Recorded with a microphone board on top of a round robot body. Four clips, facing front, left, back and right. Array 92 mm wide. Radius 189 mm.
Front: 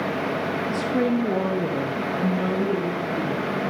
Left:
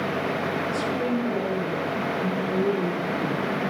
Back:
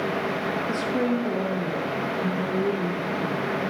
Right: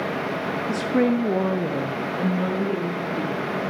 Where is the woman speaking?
95° right, 1.2 m; by 3.6 s 40° right, 4 m.